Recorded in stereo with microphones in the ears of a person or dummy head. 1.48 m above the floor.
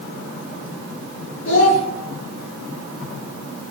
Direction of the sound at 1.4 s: 60° left (ahead or behind).